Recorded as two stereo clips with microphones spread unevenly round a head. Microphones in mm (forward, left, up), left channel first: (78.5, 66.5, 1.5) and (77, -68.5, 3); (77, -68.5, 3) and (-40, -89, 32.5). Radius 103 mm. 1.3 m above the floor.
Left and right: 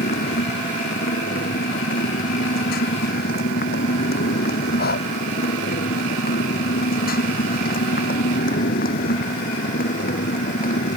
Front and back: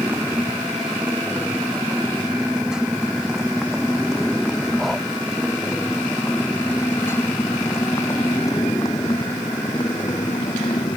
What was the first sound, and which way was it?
A motorcycle, 110° left.